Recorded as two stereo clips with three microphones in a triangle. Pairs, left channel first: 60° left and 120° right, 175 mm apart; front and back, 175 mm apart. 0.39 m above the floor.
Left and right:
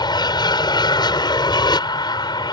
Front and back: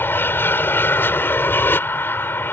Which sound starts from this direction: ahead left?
An aircraft, at 0.0 s.